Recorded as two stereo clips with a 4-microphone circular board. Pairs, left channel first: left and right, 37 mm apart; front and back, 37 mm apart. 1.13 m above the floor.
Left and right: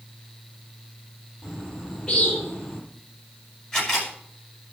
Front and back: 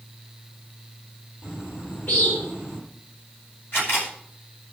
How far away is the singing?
I don't hear singing.